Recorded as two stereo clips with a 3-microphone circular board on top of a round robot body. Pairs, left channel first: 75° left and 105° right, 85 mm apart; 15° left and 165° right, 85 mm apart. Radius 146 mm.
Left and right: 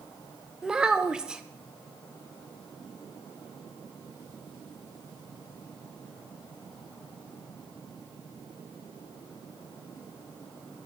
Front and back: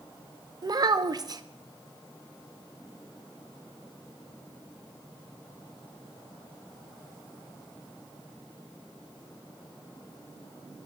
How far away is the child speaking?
About 0.6 m.